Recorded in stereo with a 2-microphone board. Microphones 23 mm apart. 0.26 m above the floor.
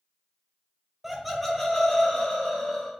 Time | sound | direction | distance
1.0 | laughter | 15° right (ahead or behind) | 1.1 m